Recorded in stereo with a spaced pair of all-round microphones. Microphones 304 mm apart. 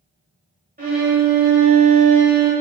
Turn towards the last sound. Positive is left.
turn(degrees=-25)  # may be behind; listen again after turning